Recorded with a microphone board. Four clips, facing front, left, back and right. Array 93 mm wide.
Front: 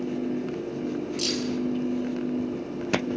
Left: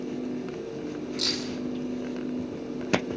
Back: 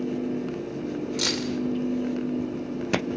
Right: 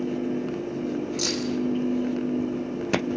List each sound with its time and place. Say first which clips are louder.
1.2 s keys jangling: right 4 dB, even; 170° right, 3.5 m